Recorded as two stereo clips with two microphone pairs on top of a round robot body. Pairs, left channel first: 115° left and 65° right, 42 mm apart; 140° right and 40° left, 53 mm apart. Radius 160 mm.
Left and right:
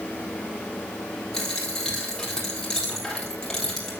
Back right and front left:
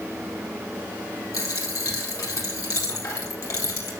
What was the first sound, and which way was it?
A dropped coin, 165° right.